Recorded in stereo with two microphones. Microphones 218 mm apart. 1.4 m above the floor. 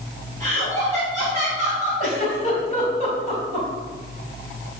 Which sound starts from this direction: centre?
Laughter, at 0.4 s.